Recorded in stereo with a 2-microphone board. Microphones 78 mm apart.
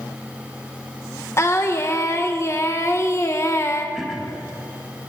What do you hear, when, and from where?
1.4 s singing: 35° left (ahead or behind), 0.7 m
4.0 s throat clearing: 5° right (ahead or behind), 1.0 m